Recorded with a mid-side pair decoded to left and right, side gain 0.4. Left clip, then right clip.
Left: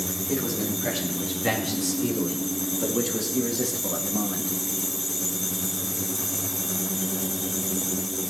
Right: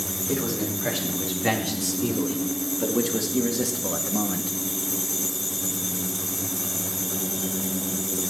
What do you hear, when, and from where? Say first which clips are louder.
0.3 s a man speaking: right 1 dB; 20° right, 4.5 m; by 4.5 s 25° right, 1.7 m